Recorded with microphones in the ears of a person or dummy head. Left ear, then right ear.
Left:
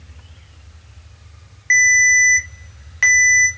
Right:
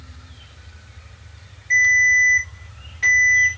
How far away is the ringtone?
About 0.9 m.